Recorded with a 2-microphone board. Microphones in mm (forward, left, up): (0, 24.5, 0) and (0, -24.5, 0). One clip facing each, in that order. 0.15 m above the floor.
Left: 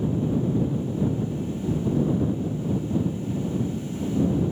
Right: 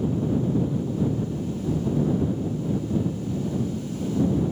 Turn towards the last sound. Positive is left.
No sound to turn to.